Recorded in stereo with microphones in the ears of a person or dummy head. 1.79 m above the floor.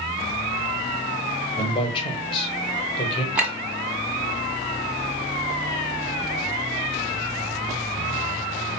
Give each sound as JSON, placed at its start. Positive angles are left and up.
{"t": 1.6, "sound": "a man speaking", "side_deg": 35, "distance_m": 1.0}
{"t": 3.4, "sound": "a clink", "side_deg": -10, "distance_m": 1.2}